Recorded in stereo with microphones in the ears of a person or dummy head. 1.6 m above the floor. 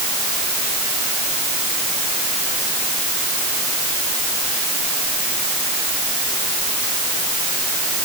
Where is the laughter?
I don't hear laughter.